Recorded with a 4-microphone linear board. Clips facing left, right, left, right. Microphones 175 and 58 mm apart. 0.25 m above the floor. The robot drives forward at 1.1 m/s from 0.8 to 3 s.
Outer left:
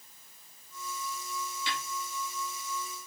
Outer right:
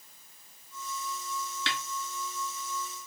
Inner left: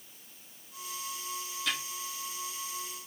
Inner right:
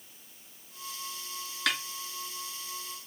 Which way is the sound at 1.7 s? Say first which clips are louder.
Outer right 1 dB, inner right 4 dB; 80° right.